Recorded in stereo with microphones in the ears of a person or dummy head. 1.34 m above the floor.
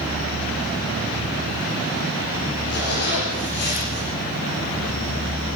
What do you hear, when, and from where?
2.7 s a zipper: 55° left (ahead or behind), 8.5 m